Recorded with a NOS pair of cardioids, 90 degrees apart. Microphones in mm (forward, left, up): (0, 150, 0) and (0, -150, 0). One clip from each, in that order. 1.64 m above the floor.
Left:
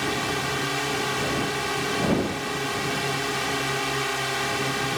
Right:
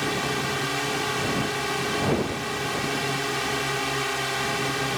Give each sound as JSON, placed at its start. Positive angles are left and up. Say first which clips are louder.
{"t": 0.0, "sound": "a drone", "louder": "even", "azimuth_deg": 5}